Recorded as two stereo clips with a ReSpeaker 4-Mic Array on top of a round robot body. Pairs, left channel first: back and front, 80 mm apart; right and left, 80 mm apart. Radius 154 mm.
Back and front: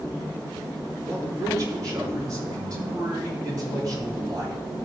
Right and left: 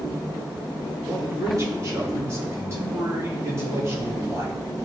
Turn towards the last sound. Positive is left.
turn(degrees=35)